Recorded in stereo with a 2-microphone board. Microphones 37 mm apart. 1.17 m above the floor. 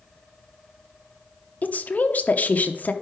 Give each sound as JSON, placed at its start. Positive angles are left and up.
{"t": 1.6, "sound": "a woman speaking", "side_deg": 45, "distance_m": 0.8}